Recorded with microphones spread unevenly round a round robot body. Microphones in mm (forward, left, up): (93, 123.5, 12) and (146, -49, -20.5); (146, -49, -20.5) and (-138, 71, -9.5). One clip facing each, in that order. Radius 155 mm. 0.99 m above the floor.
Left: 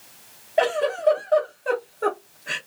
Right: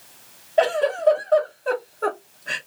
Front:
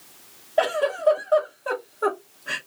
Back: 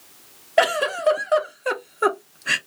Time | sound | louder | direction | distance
0.6 | a giggle | right 2 dB, back 1 dB | 165° right | 0.5 m